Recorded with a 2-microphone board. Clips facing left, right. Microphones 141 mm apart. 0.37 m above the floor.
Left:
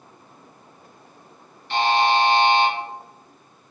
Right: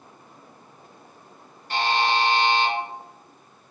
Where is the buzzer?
45° right (ahead or behind), 1.1 m.